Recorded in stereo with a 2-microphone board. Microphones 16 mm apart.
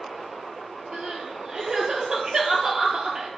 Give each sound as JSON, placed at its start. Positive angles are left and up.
{"t": 0.9, "sound": "crying", "side_deg": -55, "distance_m": 0.8}